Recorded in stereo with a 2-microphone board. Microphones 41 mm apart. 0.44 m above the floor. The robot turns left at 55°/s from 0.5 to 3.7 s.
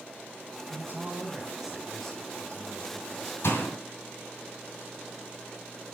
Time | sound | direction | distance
0.7 | a man speaking | 120° right | 3 m
3.4 | a door slam | 75° left (ahead or behind) | 3 m